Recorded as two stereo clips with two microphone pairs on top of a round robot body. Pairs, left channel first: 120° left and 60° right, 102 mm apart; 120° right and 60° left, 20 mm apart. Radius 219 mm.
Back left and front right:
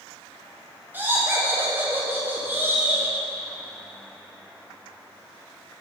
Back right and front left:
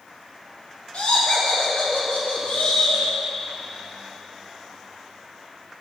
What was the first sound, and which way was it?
Laughter, 125° right.